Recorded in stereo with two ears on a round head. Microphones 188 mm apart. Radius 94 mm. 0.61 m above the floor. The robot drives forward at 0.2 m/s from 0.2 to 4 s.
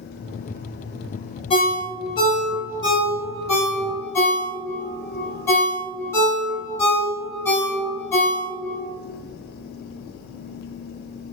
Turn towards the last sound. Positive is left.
turn(degrees=15)  # may be behind; listen again after turning